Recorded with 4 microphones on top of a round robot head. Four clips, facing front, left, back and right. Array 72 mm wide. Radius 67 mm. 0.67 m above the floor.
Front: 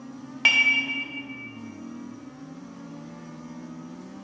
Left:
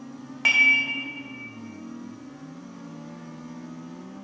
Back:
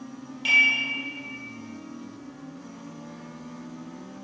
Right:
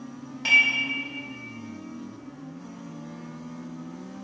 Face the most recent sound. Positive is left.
turn(degrees=30)